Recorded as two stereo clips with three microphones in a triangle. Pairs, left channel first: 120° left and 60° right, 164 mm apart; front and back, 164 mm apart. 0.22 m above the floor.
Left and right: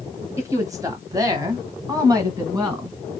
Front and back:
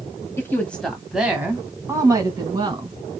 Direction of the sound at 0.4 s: 40° right.